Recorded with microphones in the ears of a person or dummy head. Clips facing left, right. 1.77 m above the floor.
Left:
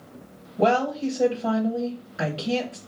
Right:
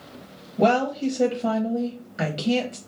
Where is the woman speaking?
20° right (ahead or behind), 0.9 m.